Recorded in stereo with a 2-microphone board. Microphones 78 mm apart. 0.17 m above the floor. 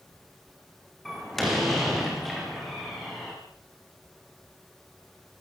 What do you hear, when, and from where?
1.1 s a door slam: 5° left (ahead or behind), 6.5 m